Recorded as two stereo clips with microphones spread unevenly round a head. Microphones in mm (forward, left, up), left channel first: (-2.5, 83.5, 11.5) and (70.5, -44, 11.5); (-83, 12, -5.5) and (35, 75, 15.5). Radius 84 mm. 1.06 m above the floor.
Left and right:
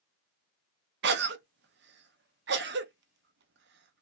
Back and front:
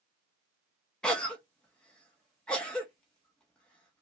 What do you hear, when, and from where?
1.0 s a cough: 70° right, 0.7 m